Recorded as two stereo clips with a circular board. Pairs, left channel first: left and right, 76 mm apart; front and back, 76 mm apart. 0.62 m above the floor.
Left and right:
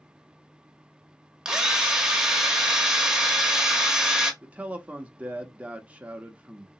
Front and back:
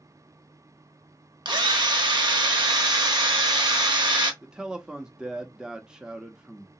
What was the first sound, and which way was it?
A drill, 175° right.